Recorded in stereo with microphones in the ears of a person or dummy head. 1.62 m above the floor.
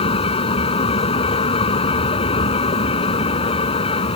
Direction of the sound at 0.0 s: 30° left (ahead or behind).